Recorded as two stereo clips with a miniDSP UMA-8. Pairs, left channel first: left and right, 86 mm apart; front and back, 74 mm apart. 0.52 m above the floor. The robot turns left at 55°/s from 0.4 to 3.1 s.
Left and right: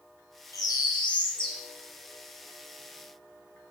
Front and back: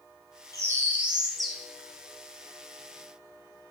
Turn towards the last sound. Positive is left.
turn(degrees=0)